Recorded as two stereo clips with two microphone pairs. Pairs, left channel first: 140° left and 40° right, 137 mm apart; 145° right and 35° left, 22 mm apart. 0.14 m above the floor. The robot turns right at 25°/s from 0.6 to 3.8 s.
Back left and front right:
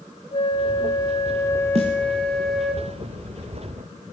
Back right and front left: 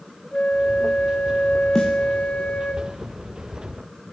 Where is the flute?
Straight behind, 2.5 m; by 2.8 s 125° right, 2.5 m.